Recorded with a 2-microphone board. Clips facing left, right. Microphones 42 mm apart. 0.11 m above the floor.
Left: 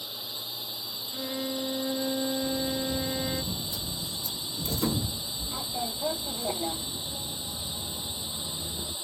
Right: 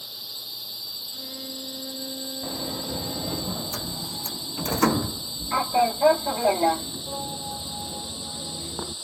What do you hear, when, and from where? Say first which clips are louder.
0.0 s a drone: left 1 dB; 20° left (ahead or behind)
1.1 s a violin: left 9 dB; 30° left (ahead or behind)
2.4 s a sliding door: left 2 dB; 65° right (ahead or behind)